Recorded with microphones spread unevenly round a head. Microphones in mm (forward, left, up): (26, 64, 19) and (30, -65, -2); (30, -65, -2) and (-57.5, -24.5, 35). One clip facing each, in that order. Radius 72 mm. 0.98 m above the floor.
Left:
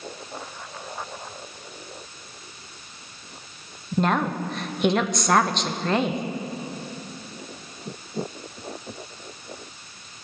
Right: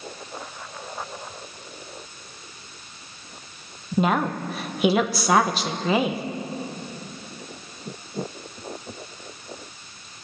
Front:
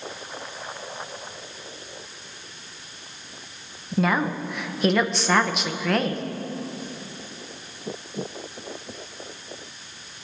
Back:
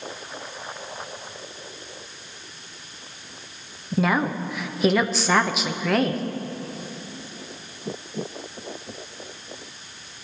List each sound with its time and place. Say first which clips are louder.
4.0 s a woman speaking: right 1 dB, back 1 dB; 45° right, 0.8 m